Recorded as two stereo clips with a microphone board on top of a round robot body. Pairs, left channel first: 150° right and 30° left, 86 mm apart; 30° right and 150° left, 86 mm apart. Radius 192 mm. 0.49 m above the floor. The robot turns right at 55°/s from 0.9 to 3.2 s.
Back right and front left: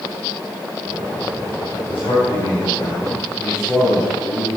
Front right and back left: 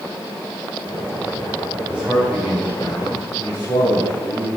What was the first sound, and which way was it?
A man speaking, 145° right.